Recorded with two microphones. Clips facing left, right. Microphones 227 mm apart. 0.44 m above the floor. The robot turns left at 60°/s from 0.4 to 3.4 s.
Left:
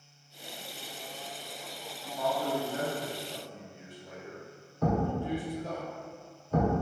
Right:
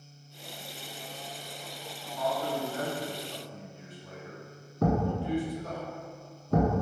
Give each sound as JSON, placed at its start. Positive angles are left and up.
{"t": 2.0, "sound": "a man speaking", "side_deg": 20, "distance_m": 1.3}
{"t": 4.8, "sound": "a thud", "side_deg": -75, "distance_m": 1.0}